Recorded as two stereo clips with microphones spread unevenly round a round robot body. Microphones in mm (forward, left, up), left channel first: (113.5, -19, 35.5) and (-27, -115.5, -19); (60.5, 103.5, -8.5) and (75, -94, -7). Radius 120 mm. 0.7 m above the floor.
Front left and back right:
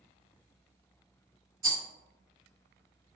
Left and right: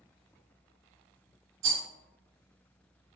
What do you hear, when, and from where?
1.6 s a rattle: 125° right, 1.7 m